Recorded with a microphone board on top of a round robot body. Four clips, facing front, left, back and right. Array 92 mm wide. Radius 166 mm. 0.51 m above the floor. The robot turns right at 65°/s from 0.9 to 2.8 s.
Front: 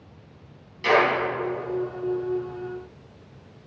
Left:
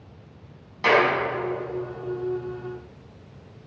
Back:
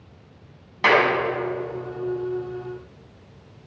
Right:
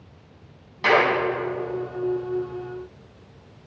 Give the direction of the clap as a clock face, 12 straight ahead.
6 o'clock.